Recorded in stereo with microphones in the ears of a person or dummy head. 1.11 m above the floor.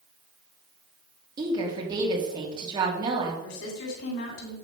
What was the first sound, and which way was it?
A woman speaking, 30° right (ahead or behind).